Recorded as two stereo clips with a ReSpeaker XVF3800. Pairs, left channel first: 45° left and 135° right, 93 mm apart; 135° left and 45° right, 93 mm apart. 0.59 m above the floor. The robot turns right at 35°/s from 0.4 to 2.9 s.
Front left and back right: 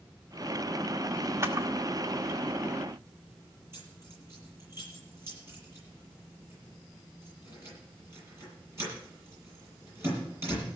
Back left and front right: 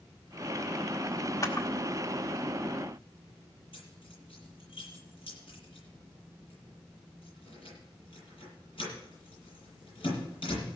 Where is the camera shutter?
175° left, 1.7 m; by 1.7 s 175° right, 1.7 m.